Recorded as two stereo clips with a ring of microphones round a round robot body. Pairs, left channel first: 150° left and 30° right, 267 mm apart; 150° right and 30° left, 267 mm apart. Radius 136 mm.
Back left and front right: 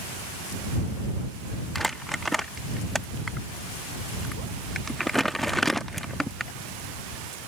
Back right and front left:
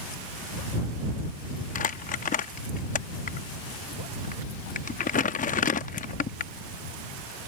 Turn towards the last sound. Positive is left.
turn(degrees=-120)